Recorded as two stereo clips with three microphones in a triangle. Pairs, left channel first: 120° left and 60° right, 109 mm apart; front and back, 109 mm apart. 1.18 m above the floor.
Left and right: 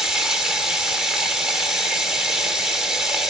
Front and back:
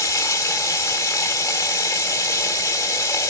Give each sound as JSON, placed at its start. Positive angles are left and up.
{"t": 0.0, "sound": "running water", "azimuth_deg": 20, "distance_m": 0.9}